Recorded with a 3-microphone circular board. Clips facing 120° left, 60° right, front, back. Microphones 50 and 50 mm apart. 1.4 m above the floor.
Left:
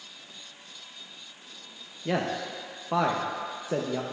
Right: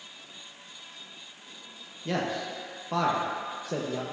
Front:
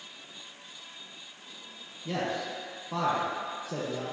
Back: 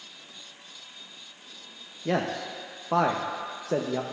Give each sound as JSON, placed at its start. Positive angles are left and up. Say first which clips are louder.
{"t": 2.0, "sound": "a man speaking", "louder": "left 1 dB, back 4 dB", "azimuth_deg": -170, "distance_m": 0.6}